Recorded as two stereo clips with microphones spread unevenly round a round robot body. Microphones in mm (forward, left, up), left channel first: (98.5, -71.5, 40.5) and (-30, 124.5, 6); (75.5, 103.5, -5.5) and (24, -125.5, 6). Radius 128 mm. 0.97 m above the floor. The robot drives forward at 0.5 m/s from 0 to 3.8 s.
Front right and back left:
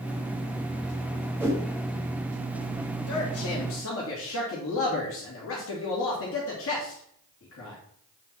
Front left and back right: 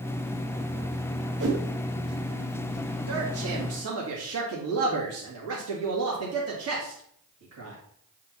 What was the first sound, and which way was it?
A whoosh, 155° right.